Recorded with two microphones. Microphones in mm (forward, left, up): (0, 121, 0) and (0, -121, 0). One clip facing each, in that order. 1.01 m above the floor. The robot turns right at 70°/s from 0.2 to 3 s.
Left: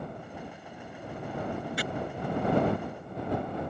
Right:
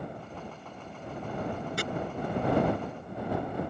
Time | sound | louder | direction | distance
1.8 | chopping | right 2 dB | 50° right (ahead or behind) | ?